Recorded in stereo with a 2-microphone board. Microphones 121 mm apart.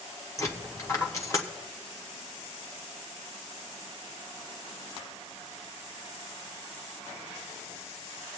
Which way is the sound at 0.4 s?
25° left (ahead or behind).